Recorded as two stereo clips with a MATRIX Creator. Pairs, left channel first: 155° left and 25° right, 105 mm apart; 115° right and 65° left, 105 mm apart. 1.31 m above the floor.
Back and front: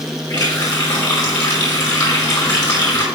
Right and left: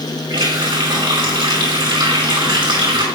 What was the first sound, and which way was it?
A running tap, 115° left.